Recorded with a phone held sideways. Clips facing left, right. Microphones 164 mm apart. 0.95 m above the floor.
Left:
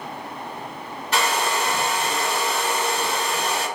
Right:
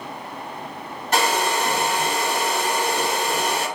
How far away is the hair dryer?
About 1.0 m.